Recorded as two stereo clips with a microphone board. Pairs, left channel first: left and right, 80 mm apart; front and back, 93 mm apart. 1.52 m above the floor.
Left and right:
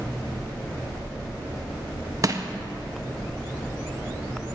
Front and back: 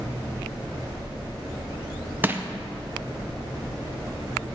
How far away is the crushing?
About 0.5 m.